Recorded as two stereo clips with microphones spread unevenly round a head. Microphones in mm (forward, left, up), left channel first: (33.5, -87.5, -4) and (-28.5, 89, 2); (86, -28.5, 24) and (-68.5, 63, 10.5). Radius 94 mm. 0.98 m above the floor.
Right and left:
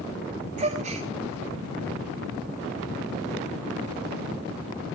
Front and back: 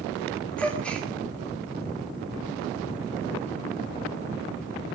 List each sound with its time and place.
0.6 s a gasp: 55° left, 3.5 m